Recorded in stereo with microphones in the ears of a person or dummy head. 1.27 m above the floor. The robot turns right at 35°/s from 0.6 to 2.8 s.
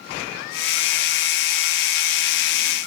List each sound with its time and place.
Only background noise.